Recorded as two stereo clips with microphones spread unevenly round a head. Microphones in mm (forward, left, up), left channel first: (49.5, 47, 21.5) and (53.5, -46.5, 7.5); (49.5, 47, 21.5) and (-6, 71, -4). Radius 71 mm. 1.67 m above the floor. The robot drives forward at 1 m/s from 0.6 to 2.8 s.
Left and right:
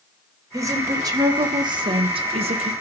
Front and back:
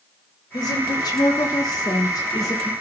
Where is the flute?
I don't hear a flute.